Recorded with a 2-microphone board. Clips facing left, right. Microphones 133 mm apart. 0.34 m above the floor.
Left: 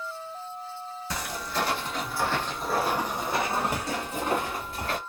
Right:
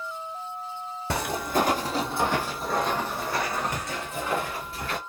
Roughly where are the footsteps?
Right.